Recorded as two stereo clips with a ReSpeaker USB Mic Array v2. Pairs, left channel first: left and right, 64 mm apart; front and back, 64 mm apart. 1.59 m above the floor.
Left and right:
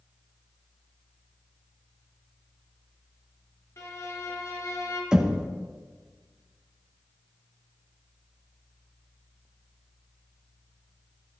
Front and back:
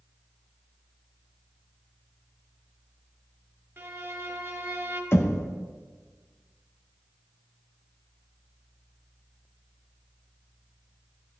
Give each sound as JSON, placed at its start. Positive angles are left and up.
{"t": 3.8, "sound": "a violin", "azimuth_deg": 125, "distance_m": 1.5}
{"t": 5.1, "sound": "knocking", "azimuth_deg": -20, "distance_m": 0.9}